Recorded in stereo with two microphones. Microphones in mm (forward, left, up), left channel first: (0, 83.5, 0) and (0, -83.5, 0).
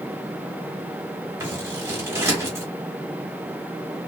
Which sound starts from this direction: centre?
Scissors, at 1.4 s.